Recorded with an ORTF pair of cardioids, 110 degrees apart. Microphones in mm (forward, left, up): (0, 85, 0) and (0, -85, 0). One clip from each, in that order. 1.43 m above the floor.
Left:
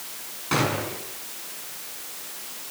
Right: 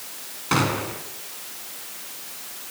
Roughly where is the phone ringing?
No phone ringing in this recording.